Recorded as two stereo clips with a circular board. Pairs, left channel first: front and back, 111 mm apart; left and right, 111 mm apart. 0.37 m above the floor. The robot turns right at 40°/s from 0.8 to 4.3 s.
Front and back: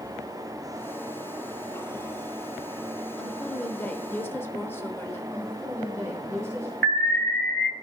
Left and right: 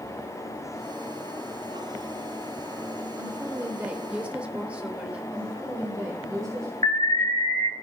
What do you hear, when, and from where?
3.2 s a woman speaking: 75° right, 0.8 m; by 5.2 s 30° right, 0.8 m
5.3 s a woman speaking: 130° right, 1.5 m
6.8 s an alarm: 75° left, 2 m